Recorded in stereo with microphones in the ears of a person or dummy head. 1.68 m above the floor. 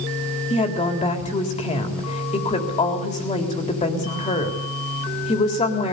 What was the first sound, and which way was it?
A woman speaking, 30° left (ahead or behind).